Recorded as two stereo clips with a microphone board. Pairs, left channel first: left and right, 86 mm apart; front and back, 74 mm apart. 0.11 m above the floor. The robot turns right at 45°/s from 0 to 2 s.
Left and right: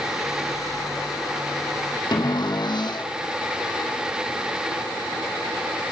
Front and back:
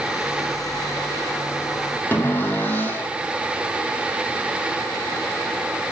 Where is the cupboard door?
60° left, 2.5 m.